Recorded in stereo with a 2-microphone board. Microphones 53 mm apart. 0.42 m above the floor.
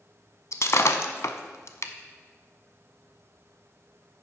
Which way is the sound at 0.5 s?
65° left (ahead or behind).